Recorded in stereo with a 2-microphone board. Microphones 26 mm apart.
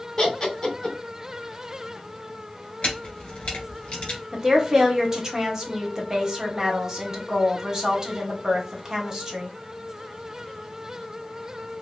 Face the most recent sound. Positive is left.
turn(degrees=-25)  # may be behind; listen again after turning